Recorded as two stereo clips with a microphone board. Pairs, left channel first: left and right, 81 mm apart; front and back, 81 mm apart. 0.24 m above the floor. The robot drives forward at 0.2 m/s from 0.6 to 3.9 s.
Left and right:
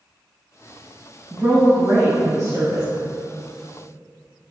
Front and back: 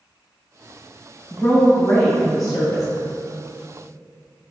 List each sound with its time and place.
1.3 s a woman speaking: 80° right, 1.8 m; by 2.9 s 90° right, 1.8 m